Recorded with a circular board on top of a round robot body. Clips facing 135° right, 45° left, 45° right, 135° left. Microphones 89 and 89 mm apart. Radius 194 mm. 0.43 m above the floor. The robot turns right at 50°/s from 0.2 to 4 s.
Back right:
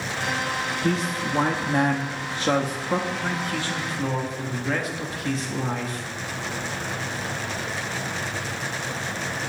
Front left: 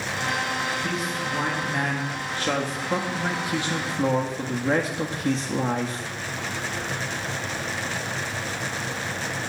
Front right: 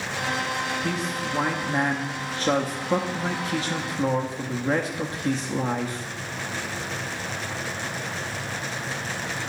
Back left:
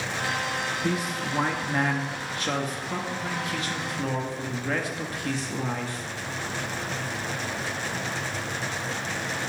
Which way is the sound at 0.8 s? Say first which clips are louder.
Back right 3 dB, even; 160° right.